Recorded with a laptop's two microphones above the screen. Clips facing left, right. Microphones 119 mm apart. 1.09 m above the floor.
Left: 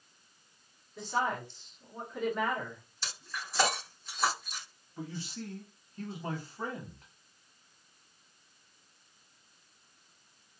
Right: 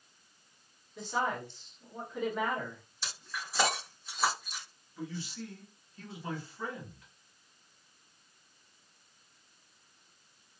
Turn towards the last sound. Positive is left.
turn(degrees=45)  # may be behind; listen again after turning